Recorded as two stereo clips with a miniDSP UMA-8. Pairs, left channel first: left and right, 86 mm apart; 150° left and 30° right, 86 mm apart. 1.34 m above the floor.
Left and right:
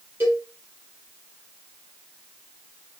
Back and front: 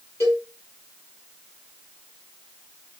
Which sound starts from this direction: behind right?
A cowbell, at 0.2 s.